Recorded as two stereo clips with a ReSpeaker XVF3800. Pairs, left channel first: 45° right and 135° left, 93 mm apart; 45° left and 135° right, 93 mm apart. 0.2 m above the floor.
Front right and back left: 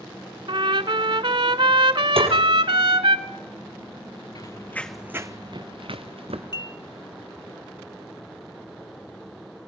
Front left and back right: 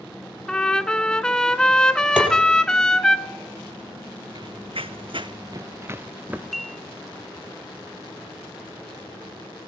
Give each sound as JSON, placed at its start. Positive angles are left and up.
{"t": 0.5, "sound": "a trumpet", "azimuth_deg": 125, "distance_m": 0.8}
{"t": 2.2, "sound": "tapping", "azimuth_deg": 145, "distance_m": 4.5}
{"t": 4.3, "sound": "running footsteps", "azimuth_deg": -90, "distance_m": 0.9}
{"t": 6.5, "sound": "dishes clattering", "azimuth_deg": -40, "distance_m": 1.3}